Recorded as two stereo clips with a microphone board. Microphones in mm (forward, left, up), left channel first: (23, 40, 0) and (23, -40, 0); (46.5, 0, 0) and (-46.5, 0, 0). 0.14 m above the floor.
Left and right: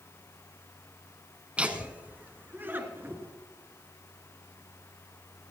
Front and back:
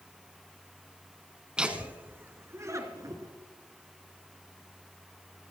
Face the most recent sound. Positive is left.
turn(degrees=-145)